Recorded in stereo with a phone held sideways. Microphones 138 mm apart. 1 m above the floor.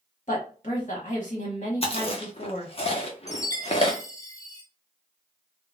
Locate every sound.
0.3 s a woman speaking: 50° left (ahead or behind), 1.2 m
1.8 s chewing: 45° left (ahead or behind), 0.7 m
3.3 s a chime: 25° left (ahead or behind), 0.5 m